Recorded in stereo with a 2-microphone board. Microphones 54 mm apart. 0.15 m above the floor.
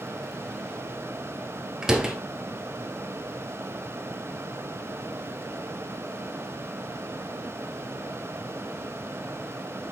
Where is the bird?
No bird in this recording.